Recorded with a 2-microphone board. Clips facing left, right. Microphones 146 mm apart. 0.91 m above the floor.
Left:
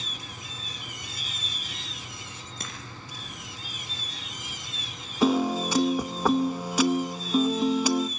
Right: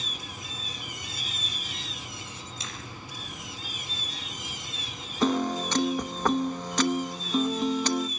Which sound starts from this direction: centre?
A piano, at 5.2 s.